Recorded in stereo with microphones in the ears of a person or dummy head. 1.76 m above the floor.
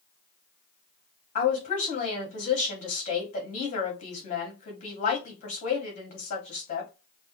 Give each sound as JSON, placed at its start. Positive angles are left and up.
{"t": 1.4, "sound": "a woman speaking", "side_deg": 35, "distance_m": 2.0}